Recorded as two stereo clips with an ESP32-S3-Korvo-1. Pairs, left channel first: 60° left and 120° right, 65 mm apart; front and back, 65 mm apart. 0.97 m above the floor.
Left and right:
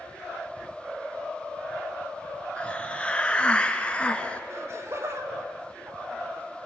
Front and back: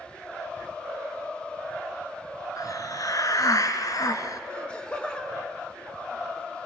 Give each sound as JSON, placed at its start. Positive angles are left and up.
{"t": 2.6, "sound": "a hiss", "azimuth_deg": -10, "distance_m": 1.8}
{"t": 4.5, "sound": "laughter", "azimuth_deg": -75, "distance_m": 3.5}